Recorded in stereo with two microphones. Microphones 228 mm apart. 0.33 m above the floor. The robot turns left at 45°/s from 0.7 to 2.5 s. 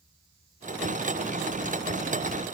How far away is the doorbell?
No doorbell in this recording.